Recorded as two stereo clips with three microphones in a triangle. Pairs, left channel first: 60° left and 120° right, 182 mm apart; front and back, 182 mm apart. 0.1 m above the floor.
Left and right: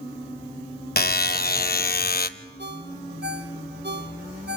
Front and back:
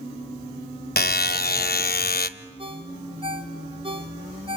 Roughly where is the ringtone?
Behind right.